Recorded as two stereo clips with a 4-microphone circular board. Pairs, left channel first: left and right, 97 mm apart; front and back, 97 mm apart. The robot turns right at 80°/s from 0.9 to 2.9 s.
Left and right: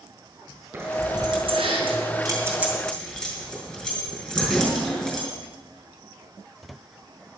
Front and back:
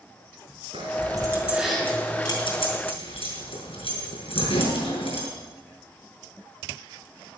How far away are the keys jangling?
About 5 m.